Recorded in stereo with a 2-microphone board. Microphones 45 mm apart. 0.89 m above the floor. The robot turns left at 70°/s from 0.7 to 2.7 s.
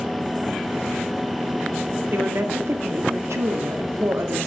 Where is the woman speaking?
50° right, 1.9 m; by 4.5 s 95° right, 1.9 m.